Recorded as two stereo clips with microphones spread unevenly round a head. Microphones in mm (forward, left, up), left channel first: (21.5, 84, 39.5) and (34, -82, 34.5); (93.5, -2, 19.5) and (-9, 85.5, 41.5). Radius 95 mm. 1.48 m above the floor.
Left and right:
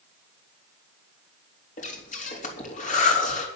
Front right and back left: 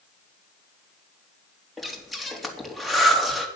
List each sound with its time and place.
1.8 s breathing: 50° left, 4 m